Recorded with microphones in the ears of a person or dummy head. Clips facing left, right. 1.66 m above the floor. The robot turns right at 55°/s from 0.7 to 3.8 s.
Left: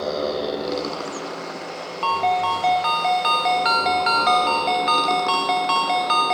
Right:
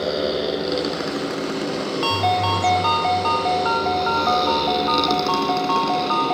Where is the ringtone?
30° right; by 6.3 s 70° left.